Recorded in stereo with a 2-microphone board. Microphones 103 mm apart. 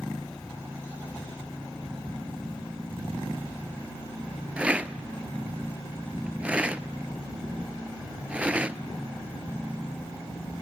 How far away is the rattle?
About 0.6 m.